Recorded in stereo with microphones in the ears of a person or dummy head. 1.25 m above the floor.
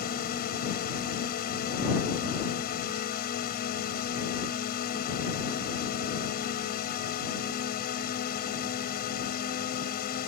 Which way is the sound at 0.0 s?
45° left (ahead or behind).